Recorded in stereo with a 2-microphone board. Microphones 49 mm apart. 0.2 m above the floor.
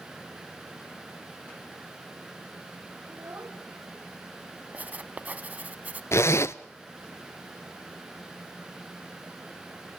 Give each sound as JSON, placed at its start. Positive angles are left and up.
{"t": 3.1, "sound": "a child speaking", "side_deg": -60, "distance_m": 5.0}
{"t": 4.7, "sound": "writing", "side_deg": -30, "distance_m": 1.0}
{"t": 6.1, "sound": "a zipper", "side_deg": 65, "distance_m": 0.7}